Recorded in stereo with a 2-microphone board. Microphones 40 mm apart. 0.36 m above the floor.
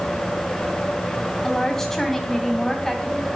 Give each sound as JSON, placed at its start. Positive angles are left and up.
{"t": 1.4, "sound": "a woman speaking", "side_deg": 10, "distance_m": 2.5}